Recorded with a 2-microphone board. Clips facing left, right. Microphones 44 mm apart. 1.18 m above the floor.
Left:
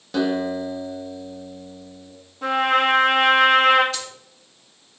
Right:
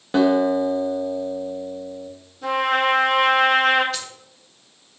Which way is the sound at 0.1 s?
30° right (ahead or behind).